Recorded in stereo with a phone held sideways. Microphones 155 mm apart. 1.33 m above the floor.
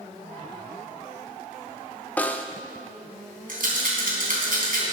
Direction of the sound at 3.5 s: 70° right (ahead or behind).